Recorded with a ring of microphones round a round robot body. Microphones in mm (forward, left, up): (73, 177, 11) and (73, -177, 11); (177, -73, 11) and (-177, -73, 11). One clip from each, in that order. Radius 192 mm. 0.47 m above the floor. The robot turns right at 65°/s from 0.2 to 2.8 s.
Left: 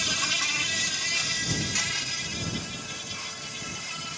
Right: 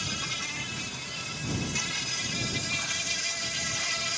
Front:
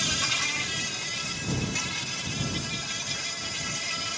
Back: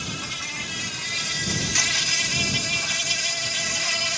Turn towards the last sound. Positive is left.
turn(degrees=-140)